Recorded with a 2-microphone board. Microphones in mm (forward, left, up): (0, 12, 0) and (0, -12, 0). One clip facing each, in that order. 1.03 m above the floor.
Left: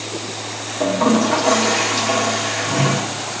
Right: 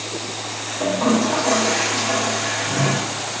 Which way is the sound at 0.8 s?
65° left (ahead or behind).